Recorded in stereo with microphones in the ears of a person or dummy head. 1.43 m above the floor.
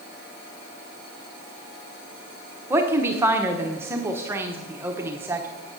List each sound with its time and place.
2.7 s a woman speaking: 15° right (ahead or behind), 0.8 m